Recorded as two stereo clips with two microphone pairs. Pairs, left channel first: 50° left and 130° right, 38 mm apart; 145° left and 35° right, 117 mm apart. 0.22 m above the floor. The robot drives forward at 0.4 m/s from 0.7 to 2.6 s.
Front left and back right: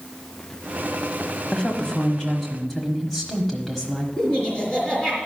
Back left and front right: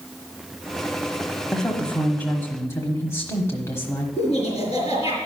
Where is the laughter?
115° left, 5 m.